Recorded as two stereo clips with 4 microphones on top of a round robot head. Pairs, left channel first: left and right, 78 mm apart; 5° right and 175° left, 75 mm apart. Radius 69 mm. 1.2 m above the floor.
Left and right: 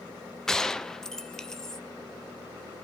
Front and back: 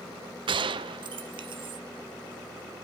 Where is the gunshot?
175° left, 0.6 m.